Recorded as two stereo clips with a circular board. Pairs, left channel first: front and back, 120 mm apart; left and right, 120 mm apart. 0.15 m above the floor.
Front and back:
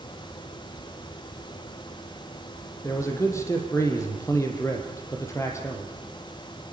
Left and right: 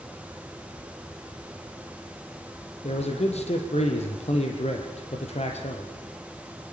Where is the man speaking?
65° left, 4.5 m.